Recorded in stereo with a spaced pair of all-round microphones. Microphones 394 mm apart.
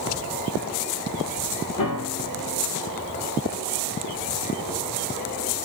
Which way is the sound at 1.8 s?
55° left (ahead or behind).